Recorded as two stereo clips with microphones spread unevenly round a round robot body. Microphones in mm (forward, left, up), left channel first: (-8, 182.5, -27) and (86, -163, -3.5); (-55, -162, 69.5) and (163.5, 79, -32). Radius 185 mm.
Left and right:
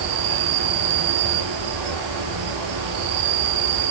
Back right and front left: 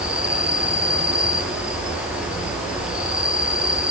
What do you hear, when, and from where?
0.0 s an insect: 40° right, 4 m